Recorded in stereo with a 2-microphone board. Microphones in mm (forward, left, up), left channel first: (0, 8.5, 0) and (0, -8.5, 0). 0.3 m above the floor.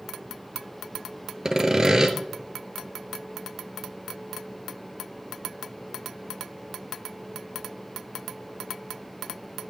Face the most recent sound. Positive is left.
turn(degrees=-30)  # may be behind; listen again after turning